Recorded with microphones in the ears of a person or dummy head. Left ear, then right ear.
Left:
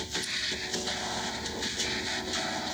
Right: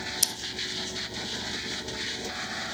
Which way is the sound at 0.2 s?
60° right (ahead or behind).